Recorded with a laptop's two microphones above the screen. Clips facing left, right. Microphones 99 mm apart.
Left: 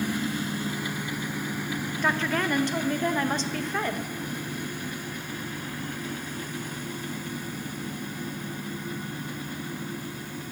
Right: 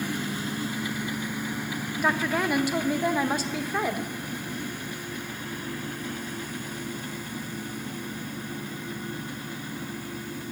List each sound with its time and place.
2.0 s a woman speaking: 10° right (ahead or behind), 0.6 m